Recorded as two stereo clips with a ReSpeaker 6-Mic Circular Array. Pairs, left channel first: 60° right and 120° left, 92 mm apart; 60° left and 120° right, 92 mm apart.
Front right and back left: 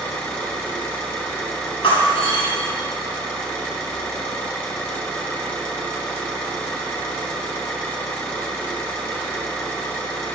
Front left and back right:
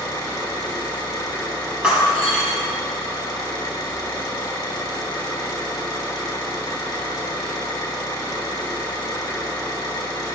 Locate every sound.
0.0 s an engine running: 10° left, 3.5 m
1.8 s breaking glass: 40° right, 3 m